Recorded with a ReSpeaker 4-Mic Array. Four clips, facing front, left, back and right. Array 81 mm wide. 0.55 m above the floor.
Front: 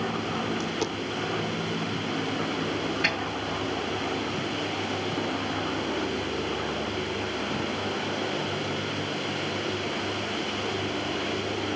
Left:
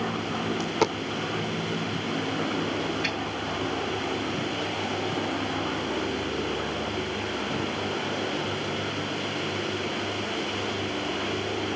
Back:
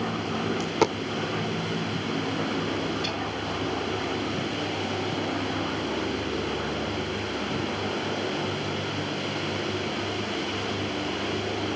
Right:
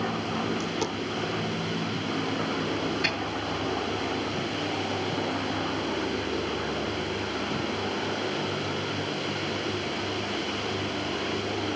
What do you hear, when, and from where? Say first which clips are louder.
0.6 s a dropped coin: left 4 dB, back 5 dB; 140° left, 0.6 m
3.0 s a snare drum: right 1 dB, front 3 dB; 15° right, 6.5 m